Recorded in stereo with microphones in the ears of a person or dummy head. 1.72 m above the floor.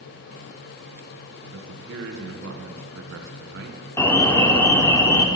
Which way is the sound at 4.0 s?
15° left (ahead or behind).